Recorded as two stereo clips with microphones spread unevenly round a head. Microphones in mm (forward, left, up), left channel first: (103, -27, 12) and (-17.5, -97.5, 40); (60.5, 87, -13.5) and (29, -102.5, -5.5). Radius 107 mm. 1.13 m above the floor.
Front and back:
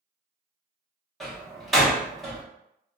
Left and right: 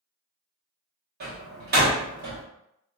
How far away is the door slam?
About 1.1 m.